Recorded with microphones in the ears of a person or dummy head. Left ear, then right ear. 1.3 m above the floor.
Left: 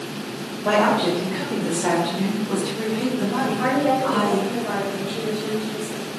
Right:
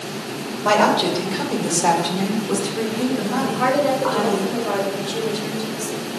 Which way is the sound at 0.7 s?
65° right (ahead or behind).